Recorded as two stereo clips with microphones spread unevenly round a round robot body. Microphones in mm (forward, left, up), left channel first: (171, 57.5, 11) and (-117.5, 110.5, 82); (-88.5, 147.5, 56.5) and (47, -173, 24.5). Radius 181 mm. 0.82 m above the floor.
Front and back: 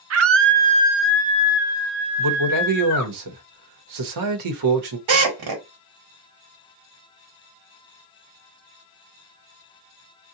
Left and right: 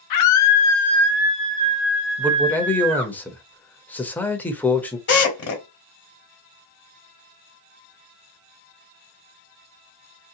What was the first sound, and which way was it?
A scream, 130° left.